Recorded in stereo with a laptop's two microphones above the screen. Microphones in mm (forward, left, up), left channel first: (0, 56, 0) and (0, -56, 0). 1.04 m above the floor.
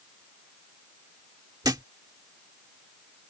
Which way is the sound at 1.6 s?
35° right (ahead or behind).